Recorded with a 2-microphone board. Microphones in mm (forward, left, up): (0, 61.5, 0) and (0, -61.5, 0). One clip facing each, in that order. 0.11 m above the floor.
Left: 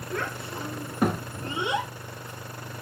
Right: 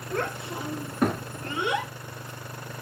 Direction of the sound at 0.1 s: 35° right (ahead or behind).